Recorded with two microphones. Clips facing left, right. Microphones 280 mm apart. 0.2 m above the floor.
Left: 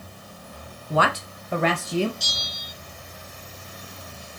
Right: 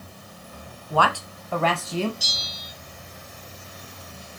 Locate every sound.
0.9 s a woman speaking: 20° left (ahead or behind), 1.2 m; by 2.1 s 15° left (ahead or behind), 1.3 m
2.2 s a bell: 5° right (ahead or behind), 3 m